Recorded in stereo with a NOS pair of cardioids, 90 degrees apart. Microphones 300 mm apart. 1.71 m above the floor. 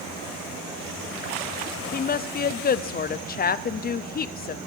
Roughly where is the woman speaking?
Ahead left.